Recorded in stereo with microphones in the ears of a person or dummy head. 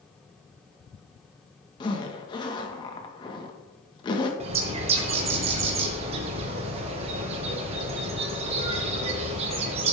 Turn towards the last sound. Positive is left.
turn(degrees=-35)  # may be behind; listen again after turning